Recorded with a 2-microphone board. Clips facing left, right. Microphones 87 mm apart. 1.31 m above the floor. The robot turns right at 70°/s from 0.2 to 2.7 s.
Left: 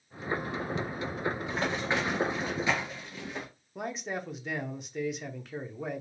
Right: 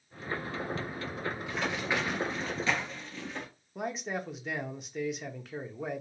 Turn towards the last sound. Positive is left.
turn(degrees=0)  # may be behind; listen again after turning